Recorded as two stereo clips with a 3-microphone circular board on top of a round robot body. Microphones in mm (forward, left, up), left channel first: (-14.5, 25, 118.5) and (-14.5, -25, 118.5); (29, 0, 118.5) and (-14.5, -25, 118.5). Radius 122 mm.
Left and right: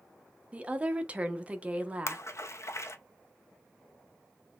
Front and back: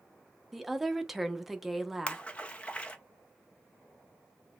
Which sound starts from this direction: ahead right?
A woman speaking, at 0.5 s.